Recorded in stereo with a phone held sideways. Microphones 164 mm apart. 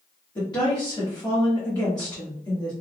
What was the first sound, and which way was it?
A woman speaking, 25° left (ahead or behind).